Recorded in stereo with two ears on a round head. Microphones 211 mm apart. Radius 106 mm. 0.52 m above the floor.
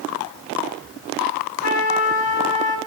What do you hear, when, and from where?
1.6 s a trumpet: 65° left (ahead or behind), 2.5 m